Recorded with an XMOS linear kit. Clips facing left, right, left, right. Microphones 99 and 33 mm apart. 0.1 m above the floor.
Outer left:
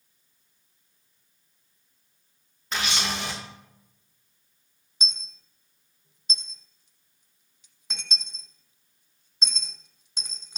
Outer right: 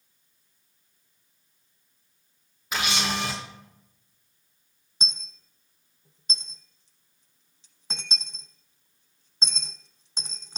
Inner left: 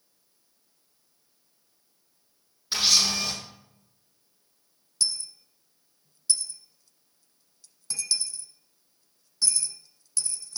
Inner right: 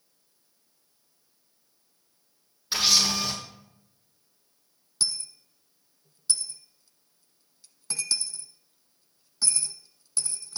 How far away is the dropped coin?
About 1.0 m.